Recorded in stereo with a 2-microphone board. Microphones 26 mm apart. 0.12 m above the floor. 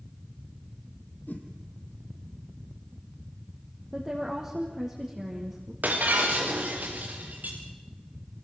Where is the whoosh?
75° left (ahead or behind), 3 m.